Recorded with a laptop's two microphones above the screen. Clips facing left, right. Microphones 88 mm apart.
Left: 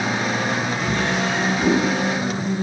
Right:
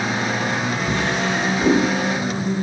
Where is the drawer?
20° right (ahead or behind), 2.5 m.